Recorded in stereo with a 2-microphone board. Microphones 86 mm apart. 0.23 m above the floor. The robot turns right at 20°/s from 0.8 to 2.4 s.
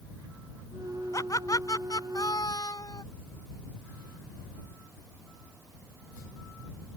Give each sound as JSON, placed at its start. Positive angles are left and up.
{"t": 1.1, "sound": "laughter", "side_deg": 45}